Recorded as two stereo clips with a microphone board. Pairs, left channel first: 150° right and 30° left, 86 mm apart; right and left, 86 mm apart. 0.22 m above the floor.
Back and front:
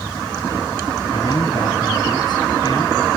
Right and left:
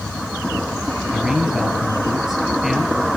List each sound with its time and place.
1.1 s a man speaking: 175° left, 4 m